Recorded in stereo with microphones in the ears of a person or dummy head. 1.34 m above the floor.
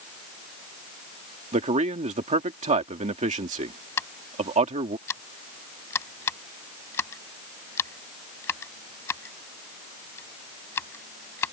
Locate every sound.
1.5 s a man speaking: 30° right (ahead or behind)
4.0 s scissors: 15° left (ahead or behind)